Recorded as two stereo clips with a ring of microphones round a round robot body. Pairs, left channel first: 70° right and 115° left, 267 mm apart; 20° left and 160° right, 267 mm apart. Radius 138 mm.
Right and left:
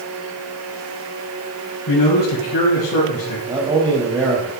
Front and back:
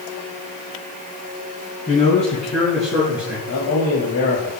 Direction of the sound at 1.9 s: 50° right.